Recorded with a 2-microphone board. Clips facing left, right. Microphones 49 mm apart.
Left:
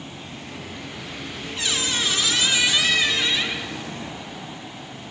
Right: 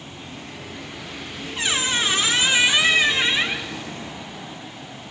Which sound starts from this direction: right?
A squeak, at 1.6 s.